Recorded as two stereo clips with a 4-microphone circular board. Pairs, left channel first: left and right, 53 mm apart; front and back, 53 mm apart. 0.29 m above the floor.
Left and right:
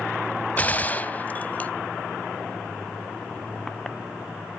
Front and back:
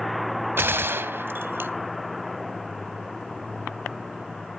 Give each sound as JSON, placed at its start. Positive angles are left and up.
{"t": 0.6, "sound": "a gunshot", "azimuth_deg": 145, "distance_m": 0.6}